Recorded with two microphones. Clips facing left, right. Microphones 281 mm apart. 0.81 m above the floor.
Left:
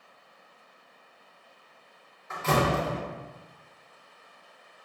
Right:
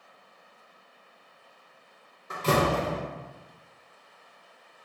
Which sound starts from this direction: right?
A door slam, at 2.3 s.